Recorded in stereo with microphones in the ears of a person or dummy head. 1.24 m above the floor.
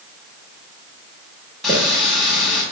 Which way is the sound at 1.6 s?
Centre (ahead or behind).